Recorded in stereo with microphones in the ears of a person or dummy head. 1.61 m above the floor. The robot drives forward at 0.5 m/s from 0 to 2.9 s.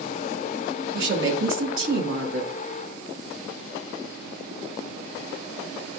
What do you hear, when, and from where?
0.9 s a woman speaking: 75° right (ahead or behind), 3 m; by 2.5 s 80° right, 3 m